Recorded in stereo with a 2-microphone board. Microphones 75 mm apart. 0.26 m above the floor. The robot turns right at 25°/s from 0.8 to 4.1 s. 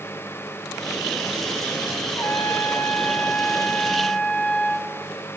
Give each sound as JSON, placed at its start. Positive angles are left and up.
{"t": 2.1, "sound": "a trumpet", "azimuth_deg": 105, "distance_m": 1.0}